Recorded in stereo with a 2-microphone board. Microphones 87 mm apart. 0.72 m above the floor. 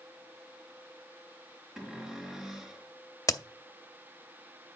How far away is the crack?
About 0.5 m.